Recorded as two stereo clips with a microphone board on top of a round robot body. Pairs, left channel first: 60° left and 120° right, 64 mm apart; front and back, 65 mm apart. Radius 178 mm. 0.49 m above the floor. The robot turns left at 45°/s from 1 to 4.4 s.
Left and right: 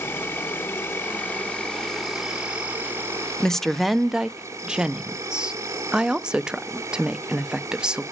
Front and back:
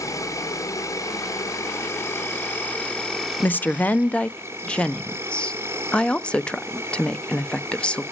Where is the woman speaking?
10° right, 0.9 m; by 8.0 s 55° right, 0.9 m.